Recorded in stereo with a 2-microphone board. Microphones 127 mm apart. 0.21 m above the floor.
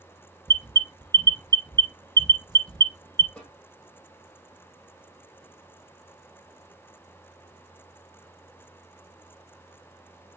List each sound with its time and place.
0.5 s an alarm: 30° right (ahead or behind), 0.9 m
3.4 s a snare drum: 10° left (ahead or behind), 3.5 m